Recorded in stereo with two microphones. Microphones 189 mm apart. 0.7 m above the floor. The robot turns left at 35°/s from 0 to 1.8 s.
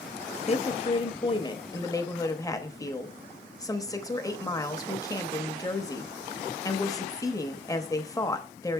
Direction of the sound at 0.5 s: 80° left.